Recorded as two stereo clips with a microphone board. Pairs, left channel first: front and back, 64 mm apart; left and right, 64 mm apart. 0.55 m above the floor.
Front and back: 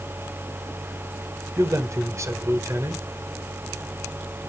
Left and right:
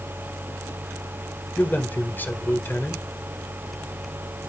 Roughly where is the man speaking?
Behind left.